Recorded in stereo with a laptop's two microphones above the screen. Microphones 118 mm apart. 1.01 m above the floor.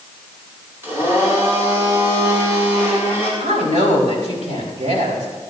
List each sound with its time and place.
0.8 s a blender: 20° right (ahead or behind), 6.5 m
3.4 s a woman speaking: 80° right, 4 m